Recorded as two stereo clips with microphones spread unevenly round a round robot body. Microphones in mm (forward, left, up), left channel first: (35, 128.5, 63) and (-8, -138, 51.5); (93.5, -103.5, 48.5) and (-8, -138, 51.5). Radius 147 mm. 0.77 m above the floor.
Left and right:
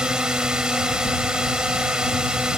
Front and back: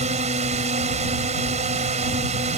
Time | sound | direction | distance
0.0 | a drone | 175° left | ?